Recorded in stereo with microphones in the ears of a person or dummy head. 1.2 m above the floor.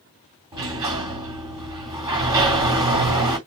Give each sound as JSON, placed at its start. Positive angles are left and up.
{"t": 0.5, "sound": "a sliding door", "side_deg": -20, "distance_m": 1.6}